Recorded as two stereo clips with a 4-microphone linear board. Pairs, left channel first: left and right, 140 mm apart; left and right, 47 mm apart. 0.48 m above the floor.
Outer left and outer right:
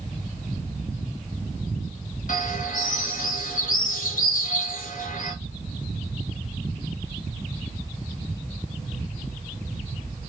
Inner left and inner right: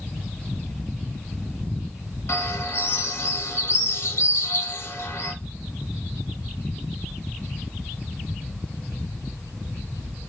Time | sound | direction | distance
2.3 | a bird | 65° left (ahead or behind) | 0.9 m